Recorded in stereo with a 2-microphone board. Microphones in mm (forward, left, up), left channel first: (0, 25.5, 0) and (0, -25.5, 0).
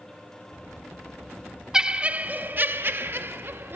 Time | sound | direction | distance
1.7 | laughter | 10° right (ahead or behind) | 0.8 m